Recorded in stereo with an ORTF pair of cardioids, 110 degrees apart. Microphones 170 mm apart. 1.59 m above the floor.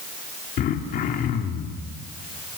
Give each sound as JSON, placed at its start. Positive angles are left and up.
{"t": 0.6, "sound": "throat clearing", "azimuth_deg": 60, "distance_m": 3.0}